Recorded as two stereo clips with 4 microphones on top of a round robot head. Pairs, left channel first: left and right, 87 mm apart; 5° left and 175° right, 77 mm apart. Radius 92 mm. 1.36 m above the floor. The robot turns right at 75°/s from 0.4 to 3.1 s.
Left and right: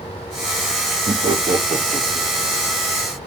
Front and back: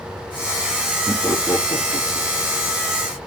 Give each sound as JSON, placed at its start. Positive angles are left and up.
{"t": 1.1, "sound": "laughter", "azimuth_deg": -100, "distance_m": 1.1}